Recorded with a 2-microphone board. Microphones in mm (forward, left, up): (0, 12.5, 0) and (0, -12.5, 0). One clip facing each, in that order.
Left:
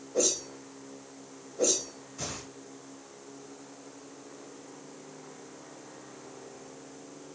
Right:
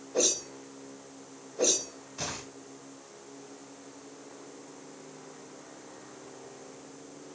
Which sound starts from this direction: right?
A whoosh, at 0.1 s.